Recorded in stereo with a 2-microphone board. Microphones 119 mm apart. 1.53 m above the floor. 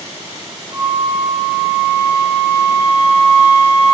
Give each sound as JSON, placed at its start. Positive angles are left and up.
{"t": 0.7, "sound": "a flute", "side_deg": -75, "distance_m": 0.7}